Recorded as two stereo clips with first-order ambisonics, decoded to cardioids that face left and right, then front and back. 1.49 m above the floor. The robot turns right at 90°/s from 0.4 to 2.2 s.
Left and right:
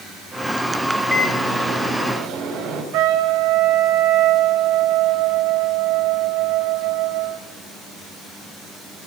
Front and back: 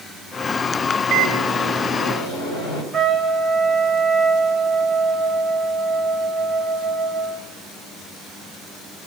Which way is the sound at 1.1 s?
150° right.